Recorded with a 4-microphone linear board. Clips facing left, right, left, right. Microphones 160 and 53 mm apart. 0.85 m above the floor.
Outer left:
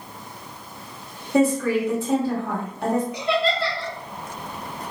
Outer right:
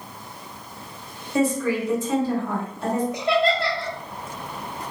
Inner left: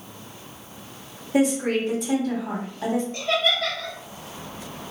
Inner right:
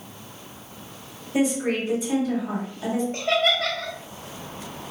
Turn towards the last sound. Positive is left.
turn(degrees=-40)  # may be behind; listen again after turning